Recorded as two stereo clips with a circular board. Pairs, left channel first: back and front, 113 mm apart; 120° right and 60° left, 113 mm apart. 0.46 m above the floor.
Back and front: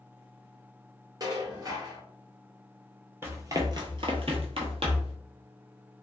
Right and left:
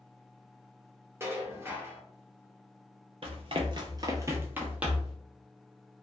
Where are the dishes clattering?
15° left, 0.7 m.